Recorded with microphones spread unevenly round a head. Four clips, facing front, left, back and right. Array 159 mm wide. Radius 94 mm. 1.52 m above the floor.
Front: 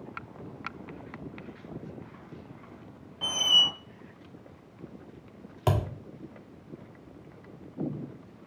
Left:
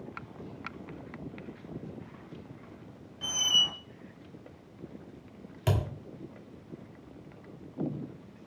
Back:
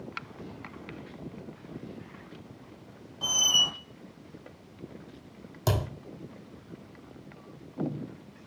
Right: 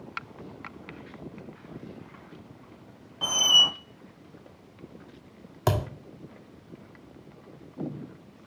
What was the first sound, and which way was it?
A squeak, 80° right.